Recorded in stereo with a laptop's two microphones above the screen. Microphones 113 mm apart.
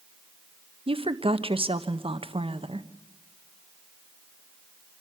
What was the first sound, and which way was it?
A woman speaking, 55° right (ahead or behind).